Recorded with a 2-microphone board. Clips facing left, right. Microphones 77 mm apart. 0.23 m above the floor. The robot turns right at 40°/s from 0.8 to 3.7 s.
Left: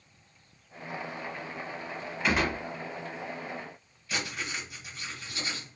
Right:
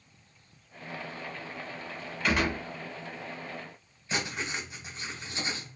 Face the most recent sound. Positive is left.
turn(degrees=-30)  # may be behind; listen again after turning